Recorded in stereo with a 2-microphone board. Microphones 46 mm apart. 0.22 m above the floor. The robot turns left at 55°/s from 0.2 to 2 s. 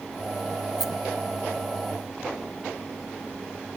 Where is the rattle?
10° right (ahead or behind), 1.3 m; by 0.9 s centre (ahead or behind), 1.3 m.